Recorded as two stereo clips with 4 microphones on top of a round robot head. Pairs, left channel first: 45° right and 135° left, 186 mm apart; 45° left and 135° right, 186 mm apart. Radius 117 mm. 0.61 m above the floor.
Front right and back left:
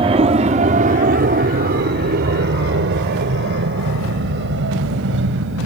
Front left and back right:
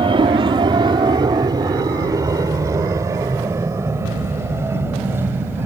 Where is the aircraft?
175° left; by 5.7 s 145° left.